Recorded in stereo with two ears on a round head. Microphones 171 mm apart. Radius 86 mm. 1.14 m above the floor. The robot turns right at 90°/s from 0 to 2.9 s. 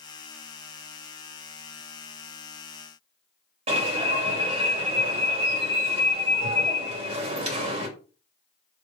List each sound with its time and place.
3.7 s an alarm: 30° right (ahead or behind), 2.5 m